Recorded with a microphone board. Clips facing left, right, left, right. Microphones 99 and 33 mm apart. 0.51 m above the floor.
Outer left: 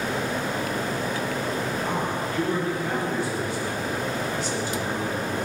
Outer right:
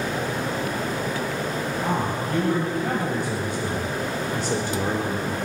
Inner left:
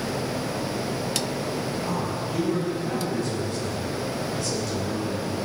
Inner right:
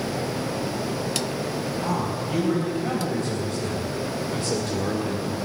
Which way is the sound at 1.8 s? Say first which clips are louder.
Outer right 2 dB, inner right 2 dB; 70° right (ahead or behind).